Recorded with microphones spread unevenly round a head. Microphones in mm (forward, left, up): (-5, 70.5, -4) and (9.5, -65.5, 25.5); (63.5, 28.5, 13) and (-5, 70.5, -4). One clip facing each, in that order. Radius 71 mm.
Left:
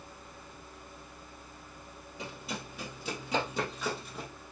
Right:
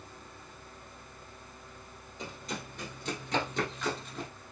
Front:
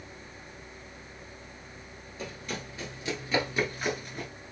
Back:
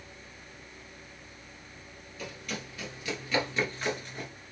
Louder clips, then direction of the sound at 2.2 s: Even, front 1 dB; 5° left.